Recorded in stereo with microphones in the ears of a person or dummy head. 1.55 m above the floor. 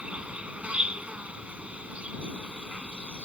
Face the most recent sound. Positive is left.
turn(degrees=-5)  # may be behind; listen again after turning